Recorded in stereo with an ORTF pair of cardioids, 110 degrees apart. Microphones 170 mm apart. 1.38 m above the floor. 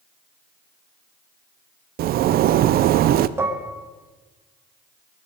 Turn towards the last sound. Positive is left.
turn(degrees=-15)